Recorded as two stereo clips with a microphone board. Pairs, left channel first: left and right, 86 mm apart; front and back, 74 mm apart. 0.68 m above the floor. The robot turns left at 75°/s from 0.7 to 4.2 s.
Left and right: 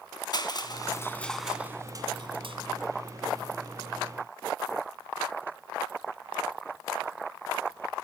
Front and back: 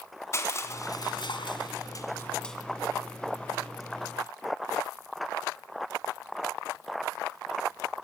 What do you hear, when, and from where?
0.3 s crushing: 55° left, 2 m; by 2.6 s 90° right, 2 m